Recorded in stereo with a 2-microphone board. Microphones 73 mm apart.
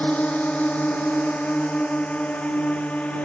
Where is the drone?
20° left (ahead or behind).